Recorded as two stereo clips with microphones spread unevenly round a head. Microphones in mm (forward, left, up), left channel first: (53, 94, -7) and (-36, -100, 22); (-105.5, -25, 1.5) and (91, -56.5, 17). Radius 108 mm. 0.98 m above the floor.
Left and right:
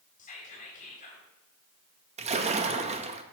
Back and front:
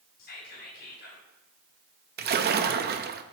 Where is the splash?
50° right, 0.8 m.